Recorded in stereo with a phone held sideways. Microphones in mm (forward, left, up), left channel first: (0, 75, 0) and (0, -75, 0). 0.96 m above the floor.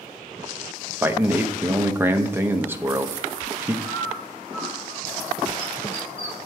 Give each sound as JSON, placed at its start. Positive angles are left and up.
{"t": 1.0, "sound": "a man speaking", "side_deg": -15, "distance_m": 0.6}
{"t": 3.8, "sound": "a bird", "side_deg": 40, "distance_m": 4.0}